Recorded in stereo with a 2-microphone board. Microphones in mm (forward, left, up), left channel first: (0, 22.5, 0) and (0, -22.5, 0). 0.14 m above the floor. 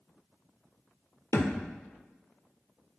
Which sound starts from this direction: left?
A thud, at 1.3 s.